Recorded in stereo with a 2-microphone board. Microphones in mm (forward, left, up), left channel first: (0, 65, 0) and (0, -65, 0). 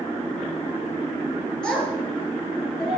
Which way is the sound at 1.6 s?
5° left (ahead or behind).